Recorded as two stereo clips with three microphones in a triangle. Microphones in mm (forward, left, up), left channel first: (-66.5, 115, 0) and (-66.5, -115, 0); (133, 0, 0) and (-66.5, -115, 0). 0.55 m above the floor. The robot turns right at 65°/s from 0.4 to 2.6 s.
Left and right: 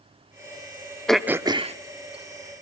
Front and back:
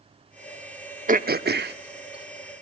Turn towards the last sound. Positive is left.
turn(degrees=-85)